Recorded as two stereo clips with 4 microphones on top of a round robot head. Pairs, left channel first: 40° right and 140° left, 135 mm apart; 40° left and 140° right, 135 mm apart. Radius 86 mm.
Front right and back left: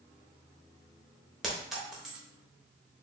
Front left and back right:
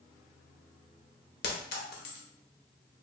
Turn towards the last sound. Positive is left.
turn(degrees=50)